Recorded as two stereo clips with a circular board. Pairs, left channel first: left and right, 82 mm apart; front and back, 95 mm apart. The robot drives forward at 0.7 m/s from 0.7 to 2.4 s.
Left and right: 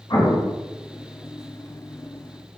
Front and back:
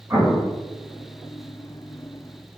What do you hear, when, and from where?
0.1 s an explosion: 115° left, 3.5 m